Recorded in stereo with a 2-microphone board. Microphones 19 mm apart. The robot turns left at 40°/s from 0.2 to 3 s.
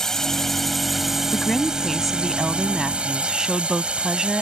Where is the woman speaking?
30° left; by 4.4 s 35° right.